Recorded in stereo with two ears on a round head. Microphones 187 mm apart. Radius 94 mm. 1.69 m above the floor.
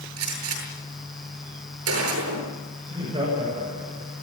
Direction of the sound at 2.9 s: 25° right (ahead or behind).